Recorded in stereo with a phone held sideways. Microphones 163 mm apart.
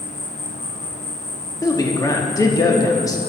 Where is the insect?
45° left (ahead or behind), 1.0 m.